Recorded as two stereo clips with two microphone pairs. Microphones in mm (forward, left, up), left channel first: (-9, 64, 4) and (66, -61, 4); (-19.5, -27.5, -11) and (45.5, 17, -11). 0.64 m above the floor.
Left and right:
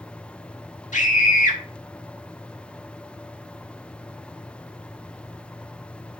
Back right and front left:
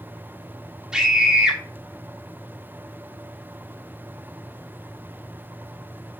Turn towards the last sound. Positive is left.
turn(degrees=110)